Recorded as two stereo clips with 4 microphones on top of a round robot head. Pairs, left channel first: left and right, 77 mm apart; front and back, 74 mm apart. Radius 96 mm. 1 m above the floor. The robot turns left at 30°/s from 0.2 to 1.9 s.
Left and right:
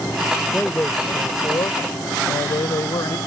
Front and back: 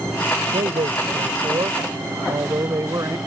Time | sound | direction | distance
0.5 | a man speaking | 175° left | ?